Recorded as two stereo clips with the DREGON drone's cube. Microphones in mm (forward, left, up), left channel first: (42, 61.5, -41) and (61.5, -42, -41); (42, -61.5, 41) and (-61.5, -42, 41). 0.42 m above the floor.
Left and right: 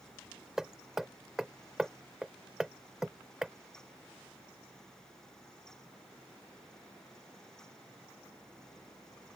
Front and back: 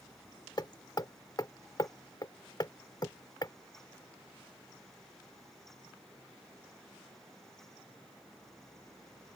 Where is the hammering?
5° left.